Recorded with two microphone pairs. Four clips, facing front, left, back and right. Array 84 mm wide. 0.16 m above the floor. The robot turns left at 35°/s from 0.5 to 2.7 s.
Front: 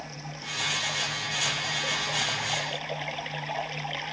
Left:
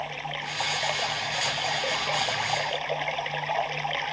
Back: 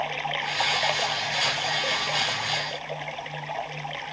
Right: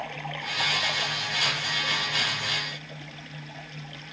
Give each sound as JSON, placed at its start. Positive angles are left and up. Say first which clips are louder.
{"t": 0.0, "sound": "running water", "louder": "left 1 dB, back 11 dB", "azimuth_deg": 175}